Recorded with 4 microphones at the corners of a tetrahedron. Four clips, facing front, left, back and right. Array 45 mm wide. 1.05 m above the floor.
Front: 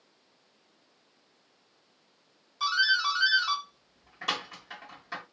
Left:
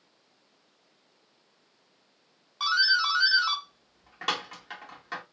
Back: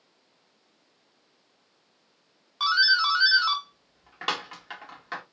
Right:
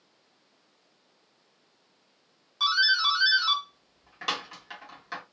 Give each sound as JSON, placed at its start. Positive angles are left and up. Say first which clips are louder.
{"t": 2.6, "sound": "a doorbell", "louder": "right 1 dB, back 4 dB", "azimuth_deg": 170, "distance_m": 1.5}